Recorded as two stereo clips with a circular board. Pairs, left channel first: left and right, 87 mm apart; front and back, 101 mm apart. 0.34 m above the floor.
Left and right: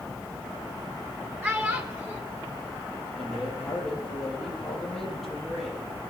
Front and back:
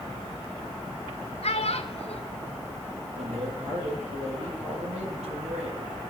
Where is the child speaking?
20° right, 2.5 m.